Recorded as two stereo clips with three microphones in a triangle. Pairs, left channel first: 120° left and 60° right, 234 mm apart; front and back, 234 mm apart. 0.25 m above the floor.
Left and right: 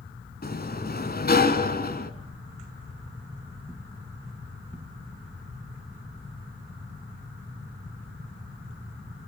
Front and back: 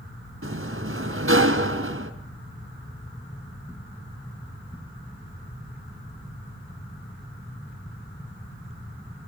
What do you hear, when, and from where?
0.4 s a sliding door: 165° left, 1.7 m